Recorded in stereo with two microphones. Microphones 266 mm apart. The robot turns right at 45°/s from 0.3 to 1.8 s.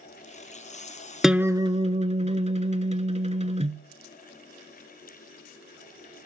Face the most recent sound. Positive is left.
turn(degrees=-25)  # may be behind; listen again after turning